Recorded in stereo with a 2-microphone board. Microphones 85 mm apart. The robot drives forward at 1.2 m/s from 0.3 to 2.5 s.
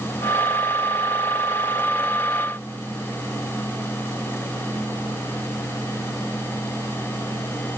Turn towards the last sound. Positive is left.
No sound to turn to.